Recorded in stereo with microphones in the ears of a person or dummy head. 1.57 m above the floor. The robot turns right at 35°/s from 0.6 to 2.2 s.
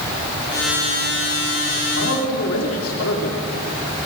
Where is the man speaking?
85° left, 4 m; by 3.4 s 80° left, 4 m.